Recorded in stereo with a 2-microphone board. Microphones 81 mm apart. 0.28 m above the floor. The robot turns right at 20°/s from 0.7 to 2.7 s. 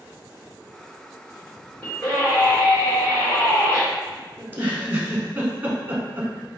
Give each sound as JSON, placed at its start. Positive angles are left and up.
{"t": 1.8, "sound": "a scream", "side_deg": 25, "distance_m": 1.8}
{"t": 4.4, "sound": "a giggle", "side_deg": -25, "distance_m": 0.8}